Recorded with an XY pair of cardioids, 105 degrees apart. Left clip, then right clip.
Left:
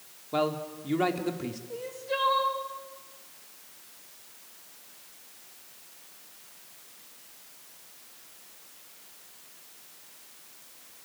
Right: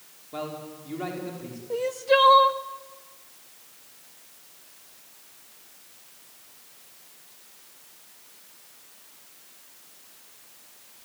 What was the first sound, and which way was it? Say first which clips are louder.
A man speaking: left 6 dB; 50° left.